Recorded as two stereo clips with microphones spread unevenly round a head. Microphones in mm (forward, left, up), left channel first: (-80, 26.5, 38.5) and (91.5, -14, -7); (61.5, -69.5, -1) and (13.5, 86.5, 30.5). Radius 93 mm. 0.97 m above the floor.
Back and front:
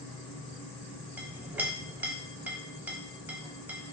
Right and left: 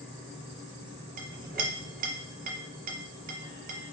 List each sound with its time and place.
0.0 s a fan: 135° right, 0.9 m
1.2 s a clink: 70° left, 0.5 m